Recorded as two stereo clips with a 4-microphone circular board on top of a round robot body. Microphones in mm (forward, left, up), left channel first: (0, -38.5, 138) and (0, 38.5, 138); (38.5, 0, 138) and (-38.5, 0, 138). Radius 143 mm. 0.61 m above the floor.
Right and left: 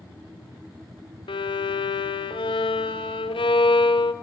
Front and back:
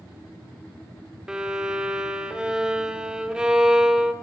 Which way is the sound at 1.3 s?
100° right.